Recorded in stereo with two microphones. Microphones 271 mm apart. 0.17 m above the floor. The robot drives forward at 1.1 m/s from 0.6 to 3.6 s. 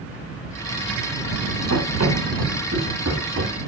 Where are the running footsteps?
70° right (ahead or behind), 9.5 m; by 3.5 s 75° right (ahead or behind), 10.5 m.